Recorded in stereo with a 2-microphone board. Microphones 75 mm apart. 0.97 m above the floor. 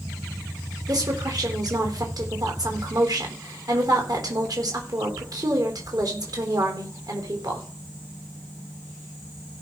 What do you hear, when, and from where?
0.9 s a woman speaking: 60° right (ahead or behind), 3.5 m